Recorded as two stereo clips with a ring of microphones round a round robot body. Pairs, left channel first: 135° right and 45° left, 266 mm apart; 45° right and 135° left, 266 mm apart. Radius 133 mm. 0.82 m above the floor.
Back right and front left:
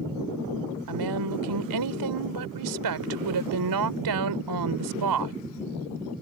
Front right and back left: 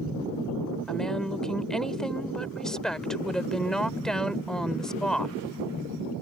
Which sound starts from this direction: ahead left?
A woman speaking, at 0.9 s.